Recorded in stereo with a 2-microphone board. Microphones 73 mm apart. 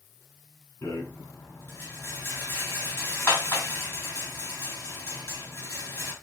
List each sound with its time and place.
0.8 s a rattle: 30° left (ahead or behind), 2.5 m